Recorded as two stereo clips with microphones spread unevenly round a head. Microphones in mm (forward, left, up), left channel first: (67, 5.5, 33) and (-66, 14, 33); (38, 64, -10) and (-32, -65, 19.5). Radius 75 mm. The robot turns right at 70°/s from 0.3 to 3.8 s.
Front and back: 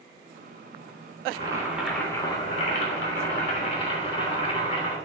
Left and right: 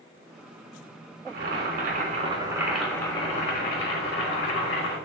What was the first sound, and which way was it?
Boiling, 135° right.